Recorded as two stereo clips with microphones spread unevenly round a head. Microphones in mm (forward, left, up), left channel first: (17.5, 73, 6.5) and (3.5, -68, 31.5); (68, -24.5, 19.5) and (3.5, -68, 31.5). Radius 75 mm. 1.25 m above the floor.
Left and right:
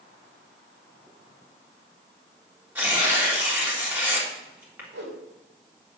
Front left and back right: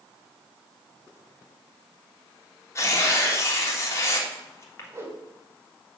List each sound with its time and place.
2.8 s tearing paper: 20° right, 3.5 m
4.9 s a whoosh: 95° right, 3.5 m